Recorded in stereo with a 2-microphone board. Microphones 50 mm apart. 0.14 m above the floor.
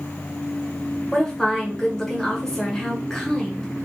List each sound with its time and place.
1.1 s a woman speaking: 10° left (ahead or behind), 1.2 m